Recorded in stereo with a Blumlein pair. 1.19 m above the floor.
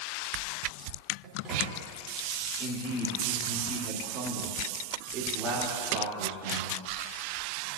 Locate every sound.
1.2 s a microwave: 25° right, 1.9 m
2.6 s a man speaking: 30° right, 2.5 m